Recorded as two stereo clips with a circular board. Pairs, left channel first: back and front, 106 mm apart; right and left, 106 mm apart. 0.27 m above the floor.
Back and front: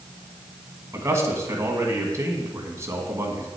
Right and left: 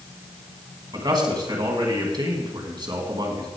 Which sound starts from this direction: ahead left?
A man speaking, at 0.9 s.